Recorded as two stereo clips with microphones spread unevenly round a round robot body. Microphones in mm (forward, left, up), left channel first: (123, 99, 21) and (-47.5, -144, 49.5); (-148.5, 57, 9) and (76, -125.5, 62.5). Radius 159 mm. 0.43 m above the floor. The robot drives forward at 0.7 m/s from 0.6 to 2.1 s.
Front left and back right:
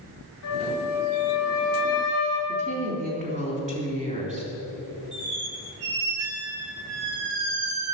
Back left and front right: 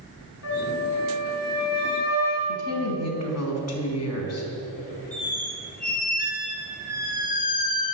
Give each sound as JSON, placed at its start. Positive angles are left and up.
{"t": 0.4, "sound": "a flute", "azimuth_deg": 95, "distance_m": 4.5}
{"t": 2.5, "sound": "a woman speaking", "azimuth_deg": 165, "distance_m": 4.0}
{"t": 5.1, "sound": "a squeak", "azimuth_deg": -160, "distance_m": 3.0}